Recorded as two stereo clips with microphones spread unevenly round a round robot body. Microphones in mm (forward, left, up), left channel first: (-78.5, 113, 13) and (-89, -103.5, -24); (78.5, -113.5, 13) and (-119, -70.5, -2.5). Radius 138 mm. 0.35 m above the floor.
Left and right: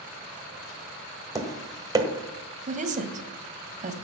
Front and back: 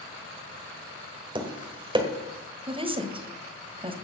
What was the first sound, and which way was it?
Tapping, 145° right.